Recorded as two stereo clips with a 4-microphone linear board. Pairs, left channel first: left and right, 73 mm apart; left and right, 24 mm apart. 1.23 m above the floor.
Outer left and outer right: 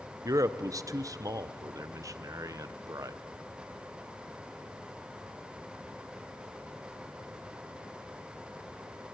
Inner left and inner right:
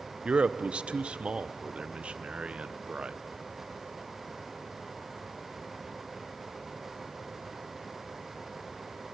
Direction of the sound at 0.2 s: 50° right (ahead or behind).